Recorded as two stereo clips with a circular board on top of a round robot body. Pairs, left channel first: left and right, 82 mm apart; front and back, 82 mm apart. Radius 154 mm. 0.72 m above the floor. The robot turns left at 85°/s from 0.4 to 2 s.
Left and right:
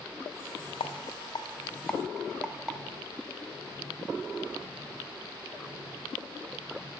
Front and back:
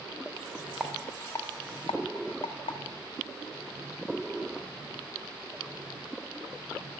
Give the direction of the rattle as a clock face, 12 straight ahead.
9 o'clock.